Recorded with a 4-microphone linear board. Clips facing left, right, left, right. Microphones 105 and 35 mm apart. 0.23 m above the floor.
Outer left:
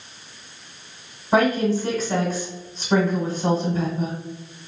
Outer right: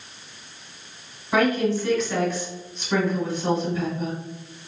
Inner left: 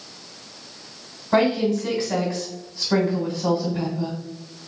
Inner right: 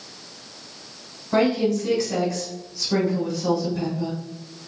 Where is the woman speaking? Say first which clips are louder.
Outer left 2 dB, inner left 1 dB; 40° left (ahead or behind), 1.8 m.